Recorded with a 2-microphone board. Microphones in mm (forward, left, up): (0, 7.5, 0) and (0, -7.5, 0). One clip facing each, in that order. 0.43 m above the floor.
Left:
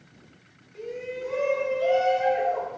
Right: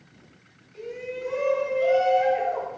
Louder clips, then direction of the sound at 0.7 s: Even; 5° right (ahead or behind).